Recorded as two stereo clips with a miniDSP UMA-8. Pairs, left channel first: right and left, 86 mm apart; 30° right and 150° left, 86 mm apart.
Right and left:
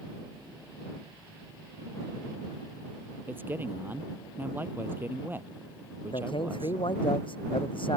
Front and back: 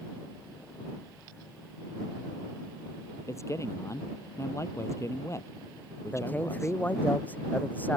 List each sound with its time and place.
3.3 s a man speaking: 25° left
6.1 s a man speaking: 100° right